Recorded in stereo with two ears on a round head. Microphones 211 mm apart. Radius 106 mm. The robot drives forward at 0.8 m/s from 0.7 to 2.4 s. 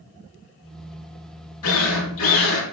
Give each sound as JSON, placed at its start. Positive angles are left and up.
{"t": 1.6, "sound": "a drill", "side_deg": 65, "distance_m": 7.5}